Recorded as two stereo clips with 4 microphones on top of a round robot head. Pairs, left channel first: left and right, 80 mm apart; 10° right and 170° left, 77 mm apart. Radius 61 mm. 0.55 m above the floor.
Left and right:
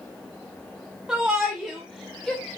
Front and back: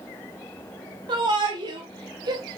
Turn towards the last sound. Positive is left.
turn(degrees=165)